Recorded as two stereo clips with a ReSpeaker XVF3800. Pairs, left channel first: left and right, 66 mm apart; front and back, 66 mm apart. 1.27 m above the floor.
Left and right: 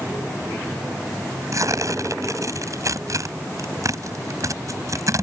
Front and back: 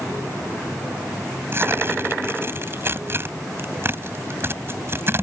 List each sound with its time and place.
1.5 s tearing paper: 125° right